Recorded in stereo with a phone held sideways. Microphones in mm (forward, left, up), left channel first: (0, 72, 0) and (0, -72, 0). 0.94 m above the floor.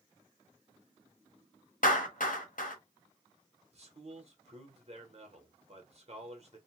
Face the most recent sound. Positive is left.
turn(degrees=-50)  # may be behind; listen again after turning